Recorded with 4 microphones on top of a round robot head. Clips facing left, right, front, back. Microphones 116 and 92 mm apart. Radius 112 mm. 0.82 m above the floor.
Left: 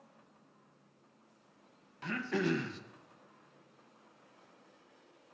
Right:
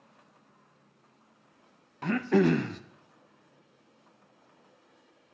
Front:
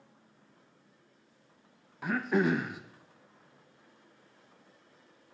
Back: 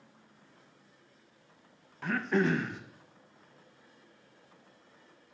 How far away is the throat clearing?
About 0.5 m.